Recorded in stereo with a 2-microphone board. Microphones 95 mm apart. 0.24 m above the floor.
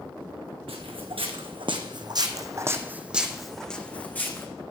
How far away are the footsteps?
About 1.6 m.